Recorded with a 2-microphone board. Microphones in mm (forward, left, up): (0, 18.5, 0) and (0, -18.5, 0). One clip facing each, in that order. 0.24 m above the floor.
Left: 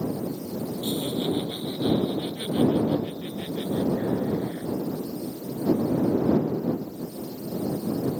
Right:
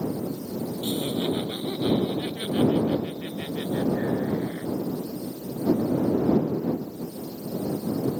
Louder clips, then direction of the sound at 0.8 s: Even; 35° right (ahead or behind).